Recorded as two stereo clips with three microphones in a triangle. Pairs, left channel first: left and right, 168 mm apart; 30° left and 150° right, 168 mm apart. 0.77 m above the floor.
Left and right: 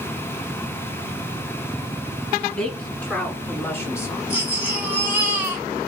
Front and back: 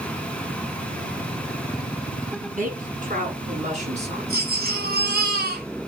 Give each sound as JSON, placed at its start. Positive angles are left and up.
{"t": 2.6, "sound": "a woman speaking", "azimuth_deg": 175, "distance_m": 7.5}
{"t": 4.3, "sound": "a baby crying", "azimuth_deg": -170, "distance_m": 4.0}